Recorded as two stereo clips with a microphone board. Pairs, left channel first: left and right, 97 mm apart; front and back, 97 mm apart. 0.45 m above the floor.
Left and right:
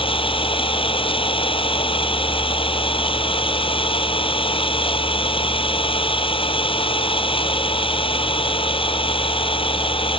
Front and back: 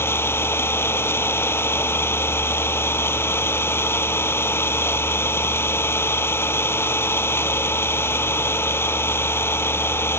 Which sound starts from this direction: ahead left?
An engine running, at 0.0 s.